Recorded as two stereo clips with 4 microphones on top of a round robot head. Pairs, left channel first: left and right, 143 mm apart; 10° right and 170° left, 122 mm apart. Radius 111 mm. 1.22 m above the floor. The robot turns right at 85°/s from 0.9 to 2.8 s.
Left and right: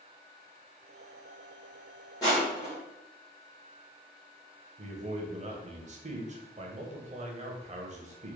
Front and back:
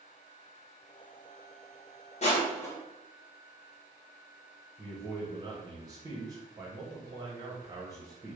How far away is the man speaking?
About 0.9 m.